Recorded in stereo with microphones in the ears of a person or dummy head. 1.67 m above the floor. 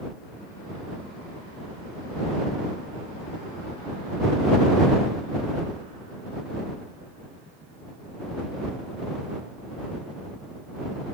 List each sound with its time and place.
Only background noise.